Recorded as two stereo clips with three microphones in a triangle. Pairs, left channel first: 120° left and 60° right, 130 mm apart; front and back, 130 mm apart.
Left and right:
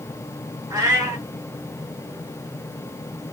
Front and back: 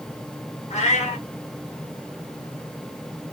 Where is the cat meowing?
5° left, 1.8 m.